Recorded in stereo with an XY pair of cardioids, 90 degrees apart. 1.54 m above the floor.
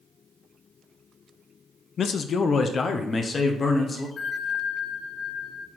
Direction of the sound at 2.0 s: 60° left.